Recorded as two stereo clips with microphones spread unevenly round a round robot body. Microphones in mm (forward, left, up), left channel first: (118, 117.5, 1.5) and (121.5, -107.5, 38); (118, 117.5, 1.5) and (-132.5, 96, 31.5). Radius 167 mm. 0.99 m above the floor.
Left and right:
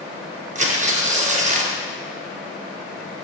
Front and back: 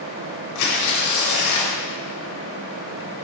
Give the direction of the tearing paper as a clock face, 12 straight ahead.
1 o'clock.